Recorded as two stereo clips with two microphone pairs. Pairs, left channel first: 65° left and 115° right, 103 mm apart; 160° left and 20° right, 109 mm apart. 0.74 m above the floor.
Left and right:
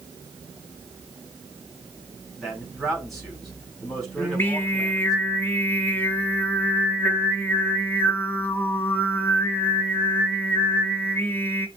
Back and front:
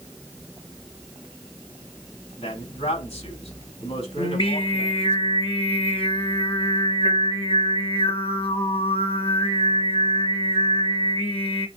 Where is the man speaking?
150° left, 5 m.